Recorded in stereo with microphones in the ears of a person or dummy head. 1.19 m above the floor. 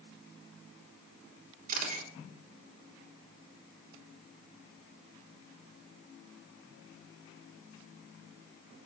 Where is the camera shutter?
40° right (ahead or behind), 3.5 m.